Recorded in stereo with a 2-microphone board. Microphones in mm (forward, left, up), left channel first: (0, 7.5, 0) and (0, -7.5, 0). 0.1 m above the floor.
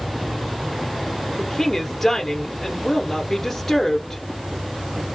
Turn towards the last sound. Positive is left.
turn(degrees=15)  # may be behind; listen again after turning